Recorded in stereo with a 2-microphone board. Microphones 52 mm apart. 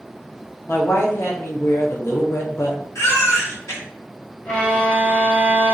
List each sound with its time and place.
0.7 s a woman speaking: 60° left (ahead or behind), 0.8 m
3.0 s a baby crying: 70° left (ahead or behind), 1.1 m
4.5 s a violin: 25° left (ahead or behind), 1.1 m